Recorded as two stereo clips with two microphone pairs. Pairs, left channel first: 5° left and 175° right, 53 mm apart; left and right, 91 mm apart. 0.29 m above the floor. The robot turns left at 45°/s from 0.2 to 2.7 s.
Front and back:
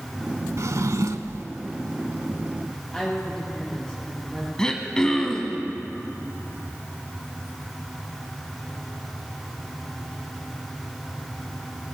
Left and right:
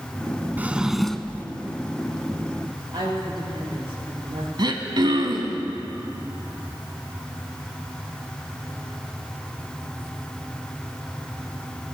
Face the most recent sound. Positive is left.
turn(degrees=-70)